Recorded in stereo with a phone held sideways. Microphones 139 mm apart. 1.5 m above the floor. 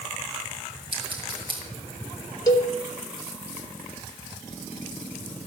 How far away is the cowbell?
About 1.8 m.